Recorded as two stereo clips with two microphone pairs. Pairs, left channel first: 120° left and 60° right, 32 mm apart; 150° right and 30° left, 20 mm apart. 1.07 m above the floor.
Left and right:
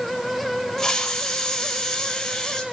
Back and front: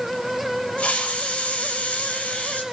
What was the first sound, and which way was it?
A hiss, 165° right.